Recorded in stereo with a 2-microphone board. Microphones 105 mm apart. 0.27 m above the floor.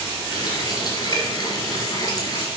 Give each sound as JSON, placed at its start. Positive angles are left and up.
{"t": 0.3, "sound": "a running tap", "side_deg": 40, "distance_m": 3.0}